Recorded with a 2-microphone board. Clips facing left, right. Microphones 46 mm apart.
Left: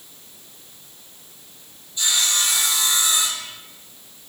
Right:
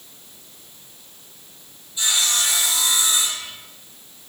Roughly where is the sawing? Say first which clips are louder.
Even; centre.